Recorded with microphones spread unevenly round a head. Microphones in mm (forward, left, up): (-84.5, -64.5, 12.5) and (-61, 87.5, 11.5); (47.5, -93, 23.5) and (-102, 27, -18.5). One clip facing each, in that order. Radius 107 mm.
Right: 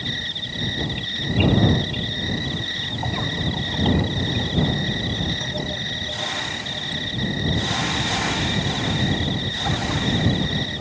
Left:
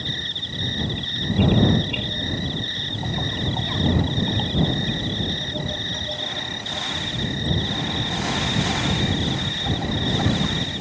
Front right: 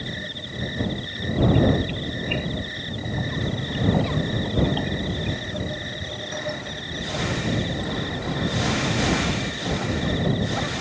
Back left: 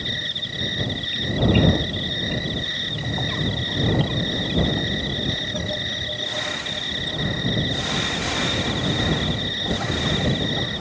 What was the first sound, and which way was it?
An insect, straight behind.